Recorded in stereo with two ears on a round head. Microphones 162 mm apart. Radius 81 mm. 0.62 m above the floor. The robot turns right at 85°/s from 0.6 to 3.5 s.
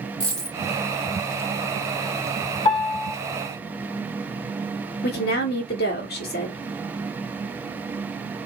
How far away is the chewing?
I don't hear chewing.